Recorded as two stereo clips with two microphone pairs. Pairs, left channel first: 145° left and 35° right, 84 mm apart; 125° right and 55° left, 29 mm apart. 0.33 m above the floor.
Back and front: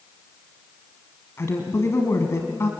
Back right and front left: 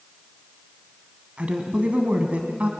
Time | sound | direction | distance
1.4 | a woman speaking | 90° left | 2 m